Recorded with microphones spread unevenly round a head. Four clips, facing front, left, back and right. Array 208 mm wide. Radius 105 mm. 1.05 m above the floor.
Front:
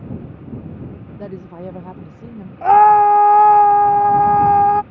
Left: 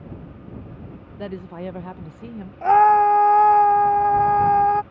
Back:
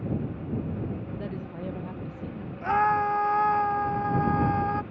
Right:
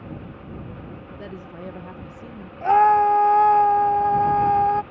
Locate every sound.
1.2 s a woman speaking: 25° left
2.6 s a scream: 5° left